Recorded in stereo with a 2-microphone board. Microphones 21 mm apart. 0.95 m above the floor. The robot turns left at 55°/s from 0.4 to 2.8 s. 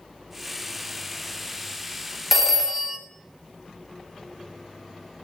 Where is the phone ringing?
10° right (ahead or behind), 0.7 m; by 3.0 s 35° right (ahead or behind), 0.7 m.